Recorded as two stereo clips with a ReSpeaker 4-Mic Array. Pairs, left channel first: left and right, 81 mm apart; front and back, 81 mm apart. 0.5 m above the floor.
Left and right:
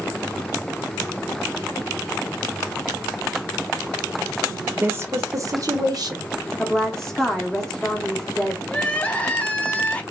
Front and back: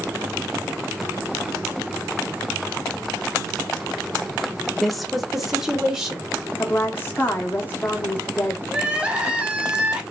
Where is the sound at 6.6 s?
15° left, 0.8 m.